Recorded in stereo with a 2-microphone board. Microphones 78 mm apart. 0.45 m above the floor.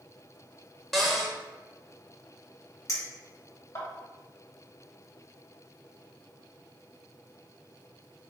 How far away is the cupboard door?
About 0.7 m.